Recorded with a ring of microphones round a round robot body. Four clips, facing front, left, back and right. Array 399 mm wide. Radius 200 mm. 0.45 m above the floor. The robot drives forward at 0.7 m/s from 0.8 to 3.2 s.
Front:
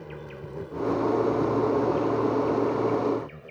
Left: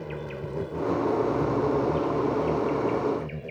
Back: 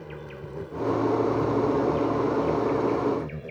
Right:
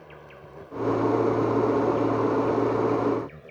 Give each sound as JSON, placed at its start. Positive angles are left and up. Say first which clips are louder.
{"t": 0.0, "sound": "an insect", "louder": "left 11 dB, even", "azimuth_deg": 90}